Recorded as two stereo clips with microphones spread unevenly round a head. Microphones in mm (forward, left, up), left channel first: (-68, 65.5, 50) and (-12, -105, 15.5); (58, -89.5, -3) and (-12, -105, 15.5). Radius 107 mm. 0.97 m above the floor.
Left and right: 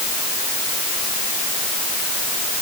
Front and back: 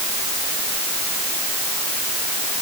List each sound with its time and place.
Only background noise.